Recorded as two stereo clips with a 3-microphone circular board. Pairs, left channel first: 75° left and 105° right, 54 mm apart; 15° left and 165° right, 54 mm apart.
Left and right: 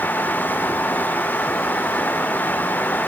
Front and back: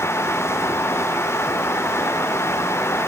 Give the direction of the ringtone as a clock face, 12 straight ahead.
No ringtone in this recording.